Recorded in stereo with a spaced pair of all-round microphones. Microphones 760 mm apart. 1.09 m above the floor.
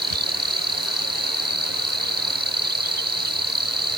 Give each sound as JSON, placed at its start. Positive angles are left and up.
{"t": 0.0, "sound": "an insect", "side_deg": -15}